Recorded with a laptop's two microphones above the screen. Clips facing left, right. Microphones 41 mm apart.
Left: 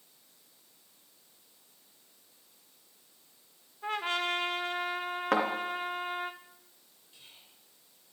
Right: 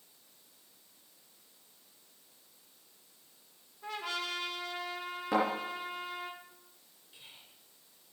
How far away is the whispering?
About 3.5 m.